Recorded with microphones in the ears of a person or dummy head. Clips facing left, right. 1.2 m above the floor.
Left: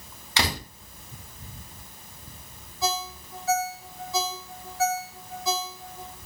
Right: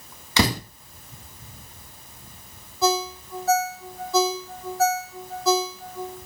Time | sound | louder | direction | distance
0.4 | a door slam | right 7 dB | 80° right | 2.5 m
2.8 | a ringtone | right 7 dB | 50° right (ahead or behind) | 2 m